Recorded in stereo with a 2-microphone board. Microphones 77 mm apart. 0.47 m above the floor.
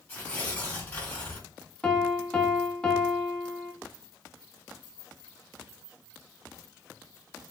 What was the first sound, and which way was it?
Tearing paper, 20° left (ahead or behind).